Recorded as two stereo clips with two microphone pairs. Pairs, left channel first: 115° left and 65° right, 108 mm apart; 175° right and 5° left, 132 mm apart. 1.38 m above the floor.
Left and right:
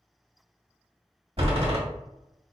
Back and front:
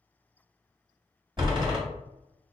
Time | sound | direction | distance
1.4 | a door slam | 40° right | 1.7 m